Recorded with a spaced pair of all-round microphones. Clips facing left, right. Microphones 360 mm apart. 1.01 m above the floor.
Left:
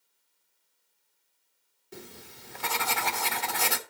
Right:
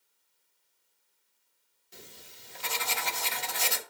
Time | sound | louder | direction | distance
1.9 | writing | left 8 dB | 65° left (ahead or behind) | 1.0 m